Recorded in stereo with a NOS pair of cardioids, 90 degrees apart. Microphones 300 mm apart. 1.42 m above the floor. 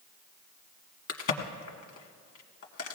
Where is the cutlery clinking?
No cutlery clinking in this recording.